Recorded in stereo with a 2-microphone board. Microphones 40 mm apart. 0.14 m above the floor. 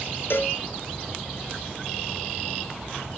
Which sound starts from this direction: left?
A cowbell, at 0.3 s.